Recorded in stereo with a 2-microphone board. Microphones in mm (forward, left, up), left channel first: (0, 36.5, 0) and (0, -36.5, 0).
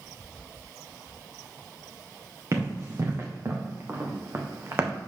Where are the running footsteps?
45° right (ahead or behind), 2.5 m; by 4.9 s 35° right (ahead or behind), 1.1 m.